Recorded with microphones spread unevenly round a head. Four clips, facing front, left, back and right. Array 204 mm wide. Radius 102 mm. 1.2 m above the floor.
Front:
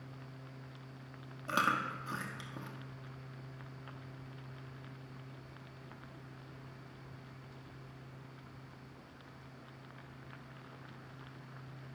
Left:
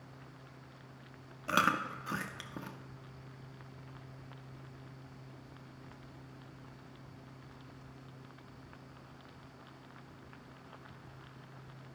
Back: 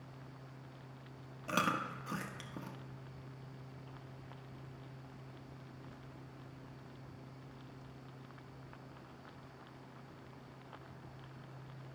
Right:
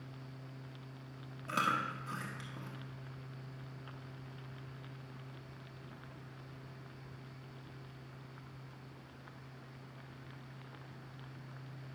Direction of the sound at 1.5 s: 65° left.